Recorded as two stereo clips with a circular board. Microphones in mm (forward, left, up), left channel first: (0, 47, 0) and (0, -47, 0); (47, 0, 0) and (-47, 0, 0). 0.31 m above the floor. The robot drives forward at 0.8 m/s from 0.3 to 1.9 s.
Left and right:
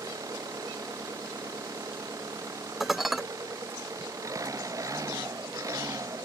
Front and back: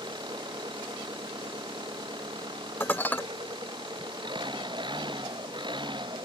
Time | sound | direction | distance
0.0 | an engine running | 145° right | ?
2.8 | dishes clattering | 10° right | ?